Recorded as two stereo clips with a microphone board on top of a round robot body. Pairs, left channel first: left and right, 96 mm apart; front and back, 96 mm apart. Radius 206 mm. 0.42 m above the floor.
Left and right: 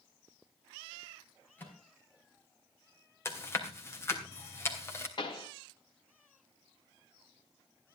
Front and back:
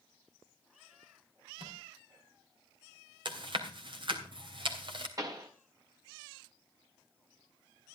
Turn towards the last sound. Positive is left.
turn(degrees=130)